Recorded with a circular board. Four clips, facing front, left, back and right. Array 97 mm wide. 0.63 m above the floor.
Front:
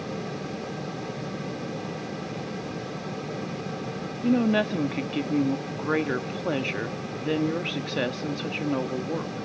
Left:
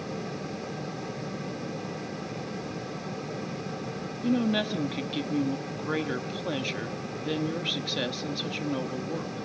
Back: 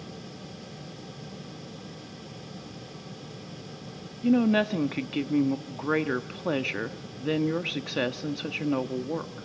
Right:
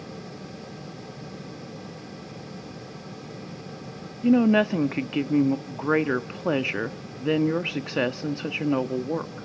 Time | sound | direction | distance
4.2 | a woman speaking | 90° right | 0.8 m